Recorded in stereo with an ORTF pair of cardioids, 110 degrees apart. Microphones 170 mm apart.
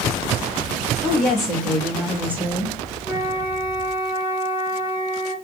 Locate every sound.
1.0 s a woman speaking: 5° left, 1.6 m; by 2.8 s 20° right, 0.9 m
3.0 s a flute: 10° right, 2 m